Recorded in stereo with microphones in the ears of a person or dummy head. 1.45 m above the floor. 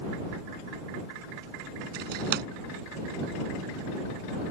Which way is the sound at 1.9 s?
50° right (ahead or behind).